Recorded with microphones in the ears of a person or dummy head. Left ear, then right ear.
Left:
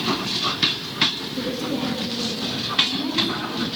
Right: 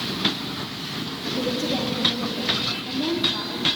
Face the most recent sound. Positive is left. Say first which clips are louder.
# right 1 dB
turn(degrees=10)  # may be behind; listen again after turning